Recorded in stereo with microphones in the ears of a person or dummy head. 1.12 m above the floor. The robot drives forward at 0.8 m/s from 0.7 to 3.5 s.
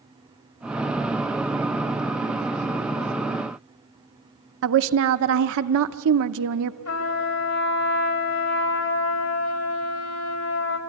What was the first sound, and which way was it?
A woman speaking, 65° right (ahead or behind).